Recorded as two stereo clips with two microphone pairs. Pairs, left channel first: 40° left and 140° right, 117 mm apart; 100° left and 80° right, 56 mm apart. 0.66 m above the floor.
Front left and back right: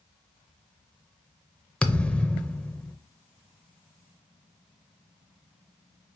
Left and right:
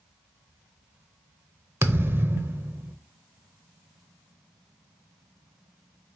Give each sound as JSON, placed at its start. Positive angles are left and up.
{"t": 1.8, "sound": "a thud", "azimuth_deg": -35, "distance_m": 0.6}